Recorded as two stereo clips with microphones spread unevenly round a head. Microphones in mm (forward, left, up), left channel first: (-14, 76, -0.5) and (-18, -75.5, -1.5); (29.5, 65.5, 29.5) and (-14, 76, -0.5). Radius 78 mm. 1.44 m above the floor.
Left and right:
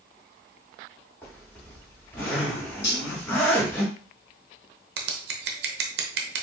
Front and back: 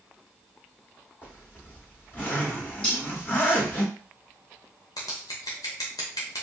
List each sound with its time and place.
1.2 s a zipper: 10° left, 2 m
2.8 s cutlery clinking: 35° left, 2.0 m
5.0 s scissors: 65° right, 0.7 m